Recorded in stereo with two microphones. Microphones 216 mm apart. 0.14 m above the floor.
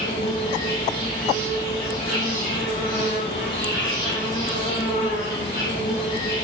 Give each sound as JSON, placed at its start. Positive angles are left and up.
{"t": 0.0, "sound": "an insect", "side_deg": 35, "distance_m": 4.0}